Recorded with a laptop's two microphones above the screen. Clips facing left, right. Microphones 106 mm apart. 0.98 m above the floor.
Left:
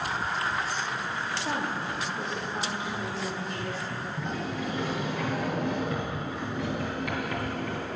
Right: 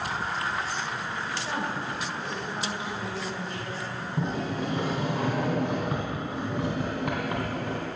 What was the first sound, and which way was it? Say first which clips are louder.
A woman speaking: left 1 dB; 35° left (ahead or behind).